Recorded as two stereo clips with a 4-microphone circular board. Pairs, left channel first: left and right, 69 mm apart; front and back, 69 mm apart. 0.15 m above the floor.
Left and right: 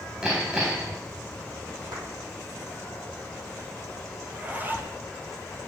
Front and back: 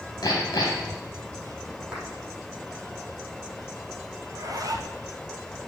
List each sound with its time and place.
0.2 s hammering: 15° right, 3 m
1.9 s a clap: 100° right, 4 m
4.2 s a zipper: 155° right, 1.5 m